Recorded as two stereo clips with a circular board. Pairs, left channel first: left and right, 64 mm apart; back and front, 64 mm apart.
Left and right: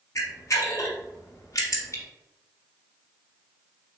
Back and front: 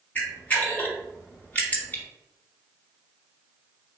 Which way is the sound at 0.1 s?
120° left.